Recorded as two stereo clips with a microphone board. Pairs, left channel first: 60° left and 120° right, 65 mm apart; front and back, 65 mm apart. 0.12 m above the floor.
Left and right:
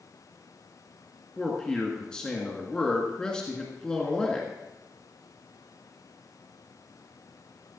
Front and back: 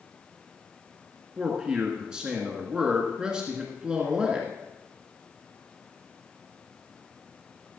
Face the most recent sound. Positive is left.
turn(degrees=125)